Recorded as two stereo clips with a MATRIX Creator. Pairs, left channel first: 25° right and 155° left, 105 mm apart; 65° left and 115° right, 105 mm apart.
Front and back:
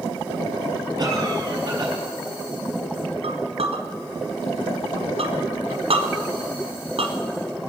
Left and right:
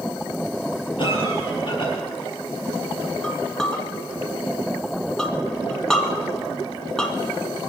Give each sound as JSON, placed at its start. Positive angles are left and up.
{"t": 1.0, "sound": "a cough", "azimuth_deg": 105, "distance_m": 4.5}
{"t": 3.2, "sound": "a clink", "azimuth_deg": 150, "distance_m": 2.0}